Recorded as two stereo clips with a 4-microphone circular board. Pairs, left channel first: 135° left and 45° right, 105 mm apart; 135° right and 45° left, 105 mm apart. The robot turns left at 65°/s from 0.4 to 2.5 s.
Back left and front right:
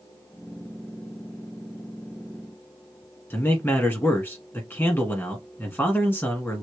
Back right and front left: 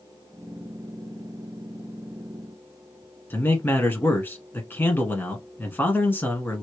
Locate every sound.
3.3 s a man speaking: straight behind, 1.2 m